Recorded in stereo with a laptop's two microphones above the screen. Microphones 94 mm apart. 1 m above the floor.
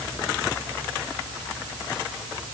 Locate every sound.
Only background noise.